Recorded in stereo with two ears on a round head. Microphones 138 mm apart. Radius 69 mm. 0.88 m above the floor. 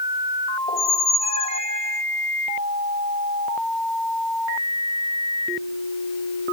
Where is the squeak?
40° left (ahead or behind), 0.6 m.